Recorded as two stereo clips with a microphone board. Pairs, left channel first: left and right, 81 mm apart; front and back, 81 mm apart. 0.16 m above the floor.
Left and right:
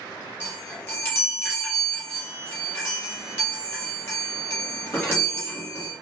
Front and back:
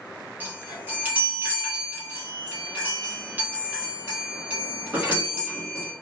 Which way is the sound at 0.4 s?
125° left.